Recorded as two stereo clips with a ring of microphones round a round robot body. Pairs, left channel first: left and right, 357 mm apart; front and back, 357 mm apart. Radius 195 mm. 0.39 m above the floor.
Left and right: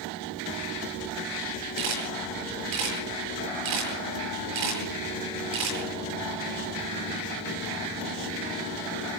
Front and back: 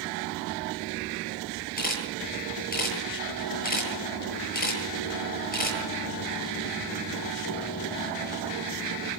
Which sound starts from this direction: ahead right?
A camera shutter, at 1.8 s.